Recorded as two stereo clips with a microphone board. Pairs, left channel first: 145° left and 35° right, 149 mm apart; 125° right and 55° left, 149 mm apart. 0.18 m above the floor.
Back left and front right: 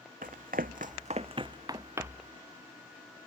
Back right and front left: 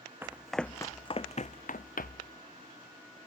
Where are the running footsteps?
20° right, 0.6 m; by 2.3 s 110° right, 1.0 m.